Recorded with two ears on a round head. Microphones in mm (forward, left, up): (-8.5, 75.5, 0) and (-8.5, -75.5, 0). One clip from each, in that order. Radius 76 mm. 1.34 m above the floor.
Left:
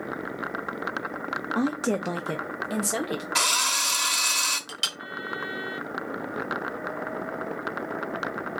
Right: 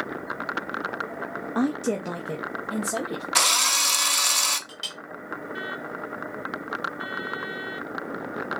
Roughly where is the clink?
Left.